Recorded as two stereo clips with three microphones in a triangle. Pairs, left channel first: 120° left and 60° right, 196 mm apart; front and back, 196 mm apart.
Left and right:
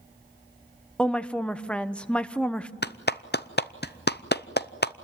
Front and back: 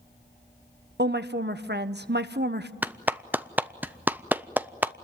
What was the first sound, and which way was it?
A woman speaking, 155° right.